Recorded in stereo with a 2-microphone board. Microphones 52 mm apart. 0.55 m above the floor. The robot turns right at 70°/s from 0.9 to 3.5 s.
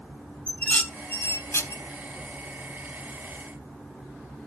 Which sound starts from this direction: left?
Dishes clattering, at 0.5 s.